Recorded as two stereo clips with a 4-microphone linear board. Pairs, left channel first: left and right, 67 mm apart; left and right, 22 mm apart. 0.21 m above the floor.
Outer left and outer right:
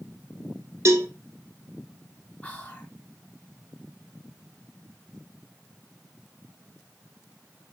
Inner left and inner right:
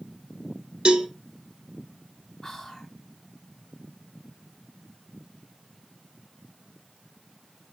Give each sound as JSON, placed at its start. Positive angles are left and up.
{"t": 0.8, "sound": "a cowbell", "side_deg": -45, "distance_m": 0.7}
{"t": 2.4, "sound": "whispering", "side_deg": 25, "distance_m": 1.1}